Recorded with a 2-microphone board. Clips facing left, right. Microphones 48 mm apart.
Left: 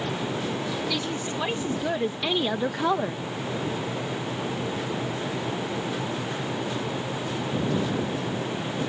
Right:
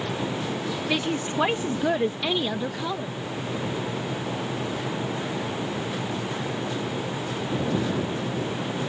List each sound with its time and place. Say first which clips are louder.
0.9 s a woman speaking: right 3 dB; 35° right (ahead or behind); by 3.2 s 50° left (ahead or behind)